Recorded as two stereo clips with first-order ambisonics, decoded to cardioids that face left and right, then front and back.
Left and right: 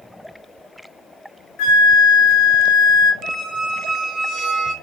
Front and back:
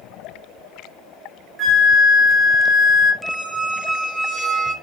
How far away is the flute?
About 0.5 m.